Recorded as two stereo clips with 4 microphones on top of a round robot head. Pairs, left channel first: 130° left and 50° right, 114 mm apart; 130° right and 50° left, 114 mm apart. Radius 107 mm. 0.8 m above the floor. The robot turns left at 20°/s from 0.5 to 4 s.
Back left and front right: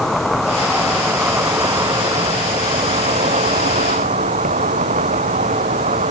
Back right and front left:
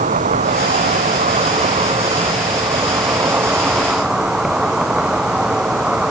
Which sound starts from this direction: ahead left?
An insect, at 0.0 s.